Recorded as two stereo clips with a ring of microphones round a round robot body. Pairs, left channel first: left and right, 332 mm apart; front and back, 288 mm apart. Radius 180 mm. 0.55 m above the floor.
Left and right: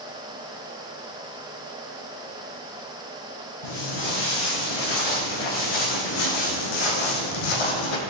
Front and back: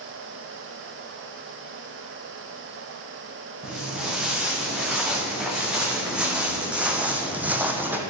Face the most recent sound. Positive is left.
turn(degrees=95)